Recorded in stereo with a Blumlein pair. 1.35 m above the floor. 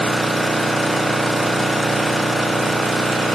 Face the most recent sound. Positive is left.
turn(degrees=0)